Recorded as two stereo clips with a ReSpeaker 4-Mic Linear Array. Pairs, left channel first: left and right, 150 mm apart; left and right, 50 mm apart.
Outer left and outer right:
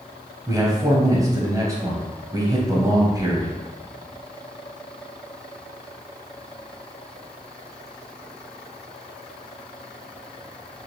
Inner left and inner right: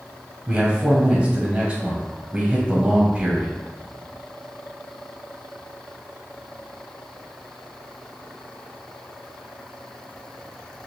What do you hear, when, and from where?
0.5 s a man speaking: 25° right (ahead or behind), 1.0 m